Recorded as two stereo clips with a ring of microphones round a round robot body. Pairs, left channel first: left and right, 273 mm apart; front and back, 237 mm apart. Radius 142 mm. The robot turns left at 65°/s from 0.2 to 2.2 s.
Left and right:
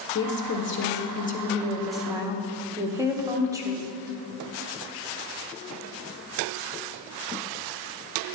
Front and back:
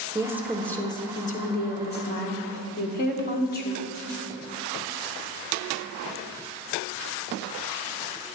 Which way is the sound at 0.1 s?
110° left.